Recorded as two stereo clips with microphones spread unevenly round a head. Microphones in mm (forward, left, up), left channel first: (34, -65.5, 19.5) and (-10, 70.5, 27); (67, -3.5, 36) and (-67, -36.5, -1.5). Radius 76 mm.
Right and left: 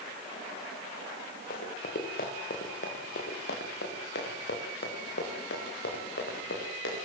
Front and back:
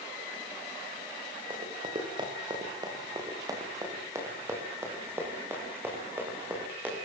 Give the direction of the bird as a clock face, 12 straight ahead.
I don't hear a bird.